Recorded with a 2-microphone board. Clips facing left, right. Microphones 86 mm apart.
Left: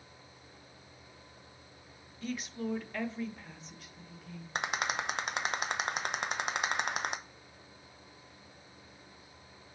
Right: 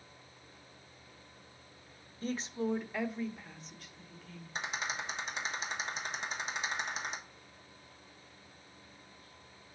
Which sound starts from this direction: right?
A woman speaking, at 2.2 s.